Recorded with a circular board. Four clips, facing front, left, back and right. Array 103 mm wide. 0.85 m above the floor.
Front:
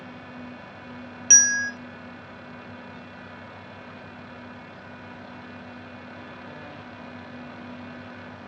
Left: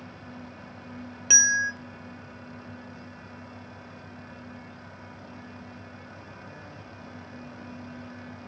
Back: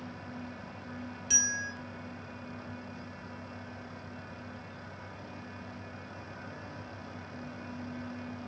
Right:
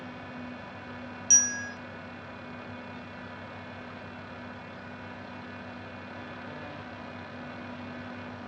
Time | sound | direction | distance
1.3 | a bell | 45° left | 0.8 m